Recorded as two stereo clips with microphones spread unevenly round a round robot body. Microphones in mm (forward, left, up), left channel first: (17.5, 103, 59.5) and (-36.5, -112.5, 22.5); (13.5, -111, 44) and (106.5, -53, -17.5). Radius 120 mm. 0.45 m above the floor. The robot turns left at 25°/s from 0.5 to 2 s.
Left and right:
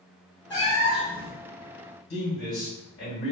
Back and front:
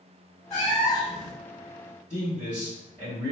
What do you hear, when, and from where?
0.5 s a cat meowing: 145° left, 1.2 m; by 1.3 s 120° left, 1.2 m
2.1 s a man speaking: 105° left, 1.6 m